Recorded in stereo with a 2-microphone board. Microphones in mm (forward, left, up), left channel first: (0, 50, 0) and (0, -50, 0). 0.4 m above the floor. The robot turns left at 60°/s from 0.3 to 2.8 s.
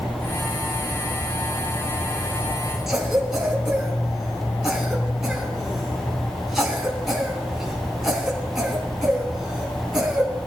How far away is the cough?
About 4 m.